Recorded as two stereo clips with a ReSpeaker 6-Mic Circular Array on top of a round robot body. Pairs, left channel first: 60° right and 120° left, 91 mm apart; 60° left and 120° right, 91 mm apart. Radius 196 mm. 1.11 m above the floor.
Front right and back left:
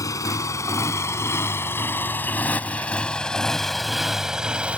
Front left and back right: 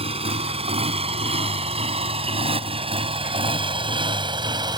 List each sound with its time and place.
0.0 s a motorcycle: 115° right; by 4.8 s 165° right